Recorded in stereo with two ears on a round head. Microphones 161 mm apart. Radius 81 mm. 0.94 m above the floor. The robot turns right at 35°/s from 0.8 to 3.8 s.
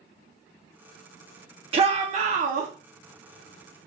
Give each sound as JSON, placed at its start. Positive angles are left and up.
{"t": 1.7, "sound": "a shout", "azimuth_deg": -130, "distance_m": 0.5}